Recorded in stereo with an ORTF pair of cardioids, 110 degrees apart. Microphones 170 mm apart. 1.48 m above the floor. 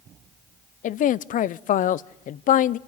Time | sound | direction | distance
0.8 | a man speaking | 50° left | 0.6 m